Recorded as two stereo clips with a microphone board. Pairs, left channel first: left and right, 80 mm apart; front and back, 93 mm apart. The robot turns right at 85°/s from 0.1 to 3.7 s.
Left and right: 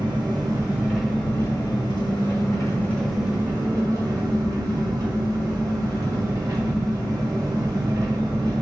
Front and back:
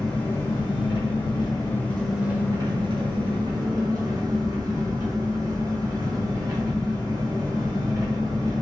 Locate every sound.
0.0 s an engine running: 80° right, 1.0 m; by 8.6 s 135° right, 1.0 m